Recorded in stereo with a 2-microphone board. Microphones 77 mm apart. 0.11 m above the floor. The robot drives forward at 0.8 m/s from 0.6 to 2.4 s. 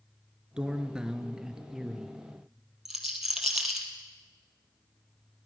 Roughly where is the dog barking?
No dog barking in this recording.